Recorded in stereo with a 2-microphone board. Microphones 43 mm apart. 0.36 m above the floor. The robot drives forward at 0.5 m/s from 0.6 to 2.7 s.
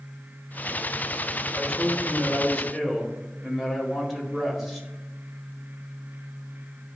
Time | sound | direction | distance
1.5 | a man speaking | 5° left (ahead or behind) | 1.3 m